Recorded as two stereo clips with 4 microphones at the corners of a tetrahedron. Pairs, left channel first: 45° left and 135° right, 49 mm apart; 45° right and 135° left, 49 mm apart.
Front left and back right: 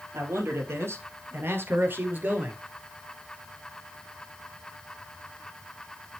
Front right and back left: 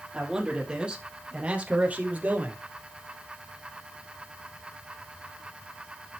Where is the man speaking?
155° right, 3.5 m; by 2.6 s straight behind, 2.5 m.